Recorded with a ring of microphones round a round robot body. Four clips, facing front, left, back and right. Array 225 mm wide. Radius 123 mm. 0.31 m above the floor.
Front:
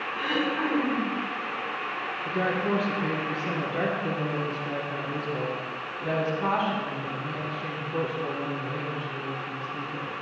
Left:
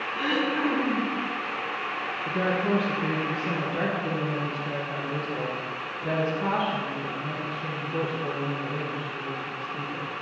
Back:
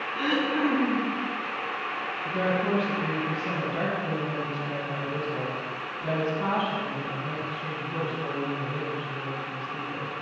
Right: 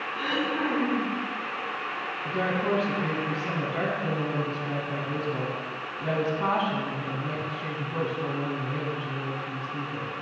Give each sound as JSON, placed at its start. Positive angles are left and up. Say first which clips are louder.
{"t": 0.1, "sound": "throat clearing", "louder": "left 2 dB, back 2 dB", "azimuth_deg": -160, "distance_m": 4.5}
{"t": 2.2, "sound": "a woman speaking", "louder": "left 1 dB, back 1 dB", "azimuth_deg": -110, "distance_m": 3.0}